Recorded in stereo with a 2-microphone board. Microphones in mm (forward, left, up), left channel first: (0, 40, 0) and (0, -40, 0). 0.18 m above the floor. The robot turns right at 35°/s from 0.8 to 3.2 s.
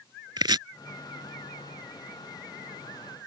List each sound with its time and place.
0.4 s chopping: 65° right (ahead or behind)